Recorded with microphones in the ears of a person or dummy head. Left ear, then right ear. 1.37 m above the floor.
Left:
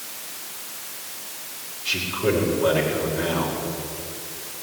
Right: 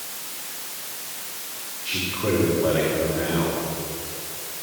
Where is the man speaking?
25° left (ahead or behind), 5.5 m.